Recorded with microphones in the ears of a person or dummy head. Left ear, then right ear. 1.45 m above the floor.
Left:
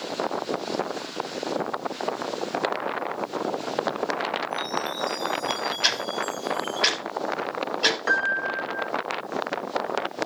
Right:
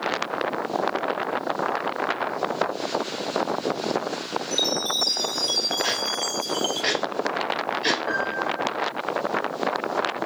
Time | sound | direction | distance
4.5 | a chime | 35° right (ahead or behind) | 0.8 m
5.8 | ticking | 50° left (ahead or behind) | 5.5 m
8.1 | a piano | 75° left (ahead or behind) | 1.9 m